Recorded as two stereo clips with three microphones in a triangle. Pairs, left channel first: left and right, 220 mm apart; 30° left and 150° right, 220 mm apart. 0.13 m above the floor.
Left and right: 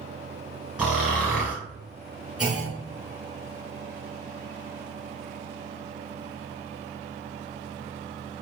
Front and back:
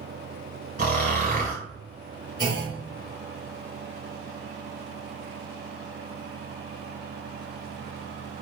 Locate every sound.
0.8 s snoring: 170° right, 1.7 m
2.4 s a clunk: 5° right, 1.7 m